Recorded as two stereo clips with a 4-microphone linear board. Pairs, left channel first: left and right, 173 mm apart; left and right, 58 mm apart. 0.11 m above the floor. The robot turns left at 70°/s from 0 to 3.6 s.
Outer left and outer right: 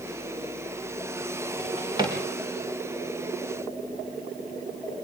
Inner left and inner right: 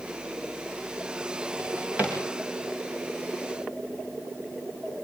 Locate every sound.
1.6 s a drawer: 55° right (ahead or behind), 6.5 m; by 2.1 s 15° right (ahead or behind), 6.5 m